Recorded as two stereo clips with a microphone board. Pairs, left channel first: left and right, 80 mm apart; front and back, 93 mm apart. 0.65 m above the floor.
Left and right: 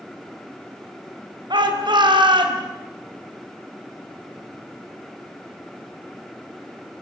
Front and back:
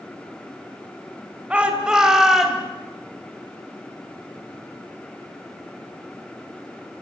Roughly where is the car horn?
I don't hear a car horn.